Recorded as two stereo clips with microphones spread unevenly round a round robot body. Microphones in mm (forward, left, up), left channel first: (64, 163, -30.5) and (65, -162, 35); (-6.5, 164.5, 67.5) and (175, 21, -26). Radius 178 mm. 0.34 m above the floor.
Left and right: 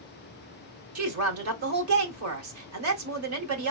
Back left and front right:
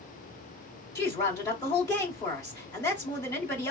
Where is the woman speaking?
120° right, 1.0 m.